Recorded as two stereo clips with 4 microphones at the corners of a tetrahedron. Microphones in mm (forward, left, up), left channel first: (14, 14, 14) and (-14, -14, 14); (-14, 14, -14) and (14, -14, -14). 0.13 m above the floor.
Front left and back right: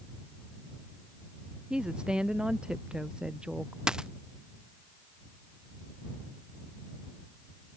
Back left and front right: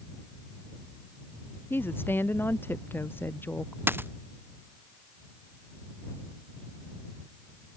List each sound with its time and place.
1.7 s a woman speaking: 155° left
3.9 s a dropped coin: 65° right